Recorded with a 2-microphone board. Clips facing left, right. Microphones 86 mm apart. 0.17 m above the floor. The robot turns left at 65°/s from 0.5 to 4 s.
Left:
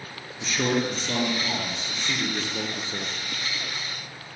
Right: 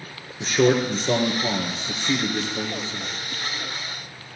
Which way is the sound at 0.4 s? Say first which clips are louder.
Right 6 dB; 60° right.